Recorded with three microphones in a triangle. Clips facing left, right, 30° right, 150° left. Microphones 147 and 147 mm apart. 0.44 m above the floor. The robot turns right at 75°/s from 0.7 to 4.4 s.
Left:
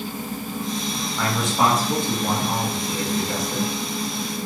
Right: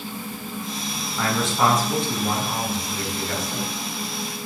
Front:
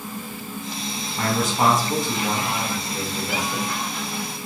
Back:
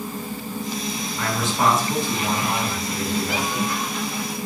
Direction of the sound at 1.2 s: 5° right.